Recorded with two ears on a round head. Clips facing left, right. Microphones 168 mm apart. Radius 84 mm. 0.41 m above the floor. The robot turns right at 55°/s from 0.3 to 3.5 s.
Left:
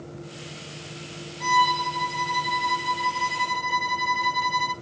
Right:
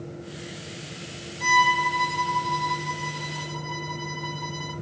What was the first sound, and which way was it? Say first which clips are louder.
A violin: even; 35° right.